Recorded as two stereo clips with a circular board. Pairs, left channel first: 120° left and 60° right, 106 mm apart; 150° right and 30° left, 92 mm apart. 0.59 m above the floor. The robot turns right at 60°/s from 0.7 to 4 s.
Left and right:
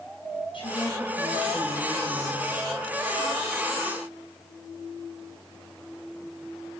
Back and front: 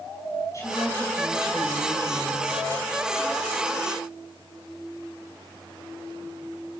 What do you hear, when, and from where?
0.5 s a woman speaking: 155° left, 4.5 m; by 2.6 s 90° right, 4.5 m